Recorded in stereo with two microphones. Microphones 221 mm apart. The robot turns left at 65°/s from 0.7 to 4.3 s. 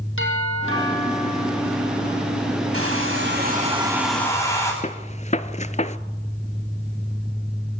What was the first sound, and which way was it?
A doorbell, 65° left.